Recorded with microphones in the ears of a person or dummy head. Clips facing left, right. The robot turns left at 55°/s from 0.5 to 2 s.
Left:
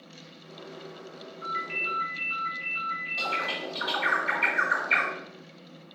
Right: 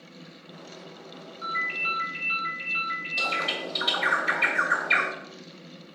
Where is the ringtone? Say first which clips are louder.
Left 1 dB; 50° right, 2.5 m; by 3.6 s 85° right, 2.5 m.